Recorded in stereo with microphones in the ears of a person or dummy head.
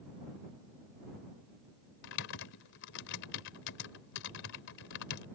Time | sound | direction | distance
2.0 | typing on a keyboard | 60° left (ahead or behind) | ?